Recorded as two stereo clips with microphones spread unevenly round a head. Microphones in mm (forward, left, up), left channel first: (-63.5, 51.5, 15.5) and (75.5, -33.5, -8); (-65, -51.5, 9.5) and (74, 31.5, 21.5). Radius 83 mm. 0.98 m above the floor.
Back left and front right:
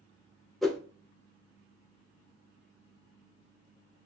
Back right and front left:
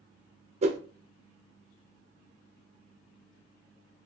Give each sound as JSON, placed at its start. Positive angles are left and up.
{"t": 0.6, "sound": "a whoosh", "azimuth_deg": 50, "distance_m": 0.6}